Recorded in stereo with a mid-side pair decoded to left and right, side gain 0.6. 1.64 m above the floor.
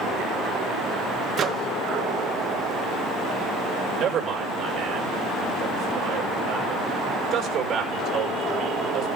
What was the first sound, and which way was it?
A microwave, 40° right.